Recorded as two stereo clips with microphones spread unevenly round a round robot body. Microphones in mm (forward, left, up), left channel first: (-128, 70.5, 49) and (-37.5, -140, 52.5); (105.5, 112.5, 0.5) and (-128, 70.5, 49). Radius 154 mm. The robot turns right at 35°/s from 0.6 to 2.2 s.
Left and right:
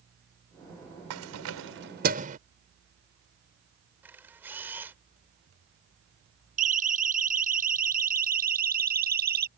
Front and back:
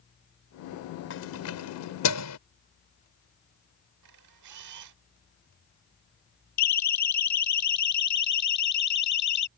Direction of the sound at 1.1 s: 40° right.